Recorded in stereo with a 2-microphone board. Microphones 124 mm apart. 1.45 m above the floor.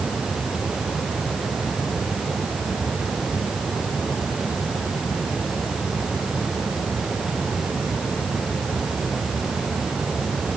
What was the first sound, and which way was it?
Only background noise.